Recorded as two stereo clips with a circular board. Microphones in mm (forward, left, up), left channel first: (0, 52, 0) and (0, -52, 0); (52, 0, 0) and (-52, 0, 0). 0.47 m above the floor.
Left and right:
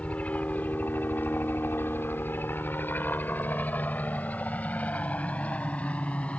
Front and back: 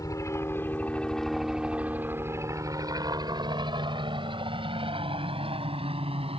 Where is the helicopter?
20° left; by 6.4 s 165° left.